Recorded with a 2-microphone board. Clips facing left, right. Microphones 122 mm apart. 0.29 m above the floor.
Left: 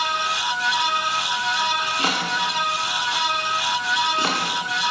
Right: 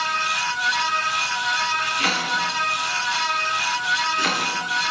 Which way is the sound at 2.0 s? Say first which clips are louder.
Left 1 dB; 30° left (ahead or behind).